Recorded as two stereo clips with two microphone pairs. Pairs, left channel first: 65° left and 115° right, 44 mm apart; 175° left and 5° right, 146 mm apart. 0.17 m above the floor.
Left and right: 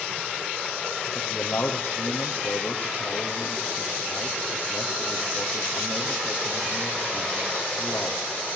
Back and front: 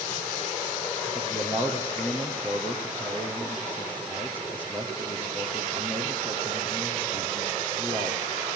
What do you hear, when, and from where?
1.1 s a man speaking: 95° left, 4.5 m